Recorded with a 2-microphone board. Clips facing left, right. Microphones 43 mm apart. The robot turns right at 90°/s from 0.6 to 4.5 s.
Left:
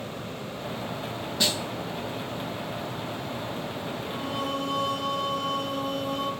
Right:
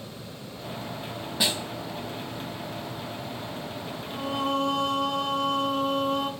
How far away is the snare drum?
About 0.6 m.